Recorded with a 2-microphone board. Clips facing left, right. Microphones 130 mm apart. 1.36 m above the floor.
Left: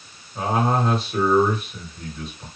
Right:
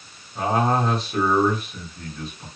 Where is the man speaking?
5° left (ahead or behind), 1.5 m.